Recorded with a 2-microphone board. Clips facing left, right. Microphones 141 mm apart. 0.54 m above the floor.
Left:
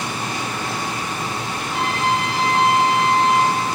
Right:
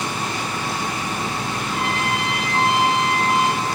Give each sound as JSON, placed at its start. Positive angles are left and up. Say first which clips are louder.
{"t": 1.6, "sound": "a trumpet", "louder": "left 4 dB", "side_deg": 20, "distance_m": 2.5}